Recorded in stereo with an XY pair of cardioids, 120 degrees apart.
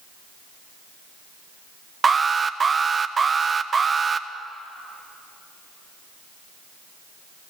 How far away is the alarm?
About 1.2 m.